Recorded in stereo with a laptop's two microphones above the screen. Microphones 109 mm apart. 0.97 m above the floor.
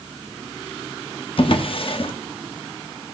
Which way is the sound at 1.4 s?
55° left (ahead or behind).